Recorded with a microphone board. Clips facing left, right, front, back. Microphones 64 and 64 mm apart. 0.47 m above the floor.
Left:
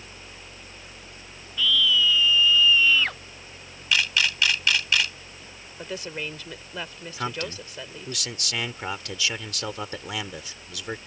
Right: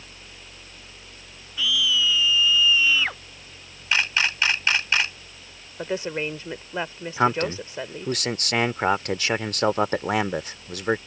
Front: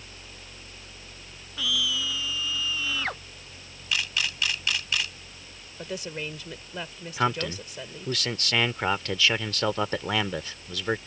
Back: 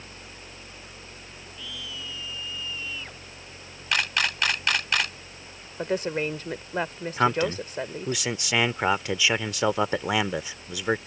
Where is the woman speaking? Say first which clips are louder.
Right 6 dB, back 8 dB; 145° right.